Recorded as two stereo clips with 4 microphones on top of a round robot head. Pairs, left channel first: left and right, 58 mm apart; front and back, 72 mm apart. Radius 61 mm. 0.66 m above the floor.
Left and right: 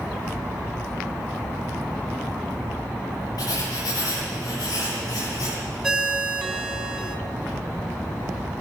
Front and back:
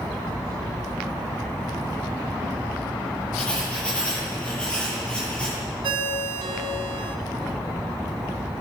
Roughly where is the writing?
Left.